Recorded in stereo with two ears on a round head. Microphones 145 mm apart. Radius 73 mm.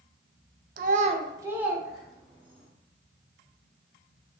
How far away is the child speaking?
About 0.5 m.